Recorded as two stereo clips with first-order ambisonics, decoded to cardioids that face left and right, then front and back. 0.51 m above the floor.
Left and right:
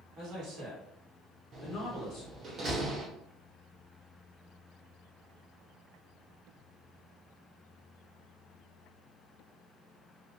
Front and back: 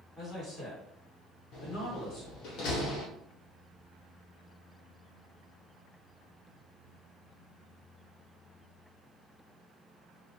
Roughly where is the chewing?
No chewing in this recording.